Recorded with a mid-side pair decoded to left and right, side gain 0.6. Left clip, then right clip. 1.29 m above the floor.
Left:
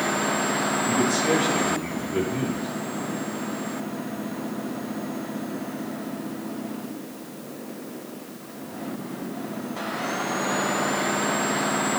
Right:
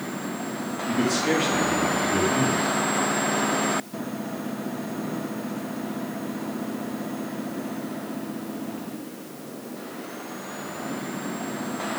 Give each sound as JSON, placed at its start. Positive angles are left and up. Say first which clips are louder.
{"t": 0.9, "sound": "a man speaking", "louder": "right 2 dB", "azimuth_deg": -50, "distance_m": 3.5}